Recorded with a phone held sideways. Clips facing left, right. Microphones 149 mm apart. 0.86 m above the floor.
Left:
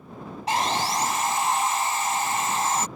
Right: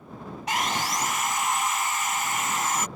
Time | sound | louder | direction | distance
0.5 | sawing | left 4 dB | 35° left (ahead or behind) | ?